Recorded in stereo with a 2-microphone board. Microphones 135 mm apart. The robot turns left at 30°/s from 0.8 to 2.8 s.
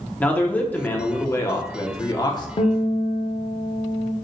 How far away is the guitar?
About 0.7 m.